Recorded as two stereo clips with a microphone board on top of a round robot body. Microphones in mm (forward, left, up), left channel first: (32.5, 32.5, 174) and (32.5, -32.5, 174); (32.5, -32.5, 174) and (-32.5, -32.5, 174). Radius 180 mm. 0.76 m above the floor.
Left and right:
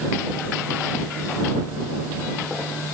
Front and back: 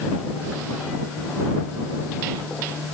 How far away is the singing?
I don't hear singing.